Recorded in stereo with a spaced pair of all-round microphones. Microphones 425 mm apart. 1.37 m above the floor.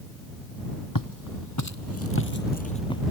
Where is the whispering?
I don't hear whispering.